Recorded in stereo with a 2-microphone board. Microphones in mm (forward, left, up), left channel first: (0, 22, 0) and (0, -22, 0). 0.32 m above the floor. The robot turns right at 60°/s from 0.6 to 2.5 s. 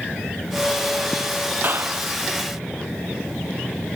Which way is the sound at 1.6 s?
40° right (ahead or behind).